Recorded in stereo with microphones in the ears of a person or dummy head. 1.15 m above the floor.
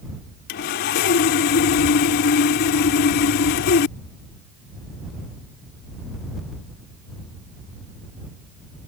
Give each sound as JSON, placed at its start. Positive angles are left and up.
{"t": 0.5, "sound": "sawing", "side_deg": 45}